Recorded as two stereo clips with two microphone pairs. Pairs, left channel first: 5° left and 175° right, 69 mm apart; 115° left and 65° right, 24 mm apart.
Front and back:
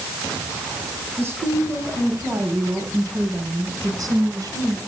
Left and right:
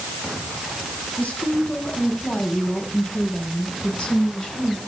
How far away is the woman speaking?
About 7 m.